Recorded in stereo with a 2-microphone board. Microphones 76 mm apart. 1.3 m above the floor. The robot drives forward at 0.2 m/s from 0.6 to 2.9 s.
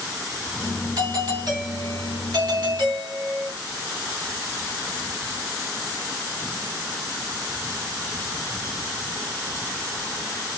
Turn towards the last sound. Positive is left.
turn(degrees=-65)  # may be behind; listen again after turning